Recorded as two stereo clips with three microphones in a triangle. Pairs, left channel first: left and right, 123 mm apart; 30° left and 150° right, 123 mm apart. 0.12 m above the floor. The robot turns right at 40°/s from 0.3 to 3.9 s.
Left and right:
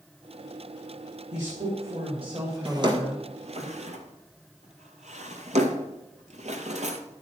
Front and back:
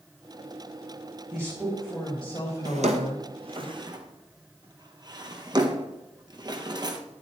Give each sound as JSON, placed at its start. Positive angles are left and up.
{"t": 1.3, "sound": "a woman speaking", "azimuth_deg": -85, "distance_m": 4.5}
{"t": 2.6, "sound": "a drawer", "azimuth_deg": -150, "distance_m": 1.5}